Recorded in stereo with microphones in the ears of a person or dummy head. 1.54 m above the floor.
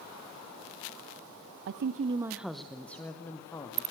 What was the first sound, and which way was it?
A woman speaking, 60° right (ahead or behind).